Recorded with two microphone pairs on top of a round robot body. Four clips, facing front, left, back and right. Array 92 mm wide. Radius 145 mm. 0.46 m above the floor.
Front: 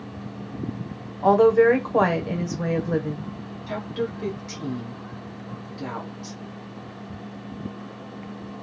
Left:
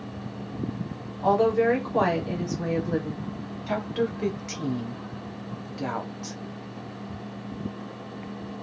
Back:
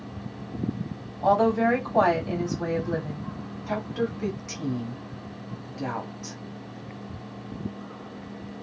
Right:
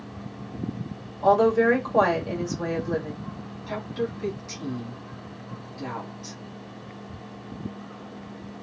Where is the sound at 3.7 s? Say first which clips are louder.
Left 3 dB, even; 115° left, 1.4 m.